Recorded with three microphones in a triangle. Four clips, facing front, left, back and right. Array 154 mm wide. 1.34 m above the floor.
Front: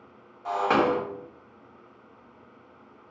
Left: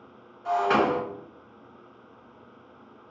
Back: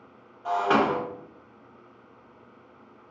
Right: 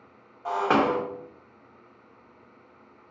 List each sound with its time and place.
0.5 s breaking glass: 80° right, 0.6 m